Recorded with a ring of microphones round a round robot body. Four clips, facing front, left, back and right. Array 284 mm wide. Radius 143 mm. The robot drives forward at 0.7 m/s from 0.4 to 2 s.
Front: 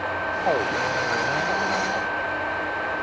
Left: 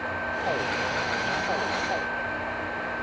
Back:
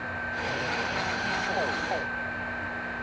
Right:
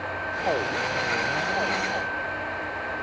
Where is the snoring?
I don't hear snoring.